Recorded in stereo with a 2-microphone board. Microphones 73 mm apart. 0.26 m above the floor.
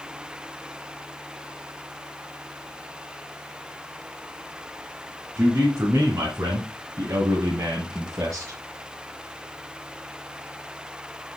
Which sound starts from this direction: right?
A man speaking, at 5.4 s.